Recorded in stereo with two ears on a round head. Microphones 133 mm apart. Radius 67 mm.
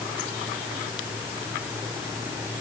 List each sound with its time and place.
Only background noise.